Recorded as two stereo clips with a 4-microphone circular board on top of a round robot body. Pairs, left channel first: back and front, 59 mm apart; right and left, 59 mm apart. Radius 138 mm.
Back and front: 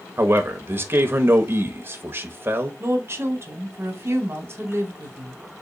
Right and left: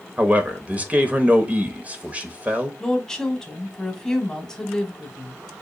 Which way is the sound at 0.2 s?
35° left.